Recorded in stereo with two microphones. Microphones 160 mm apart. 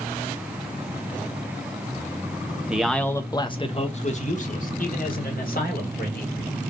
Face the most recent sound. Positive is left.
turn(degrees=70)  # may be behind; listen again after turning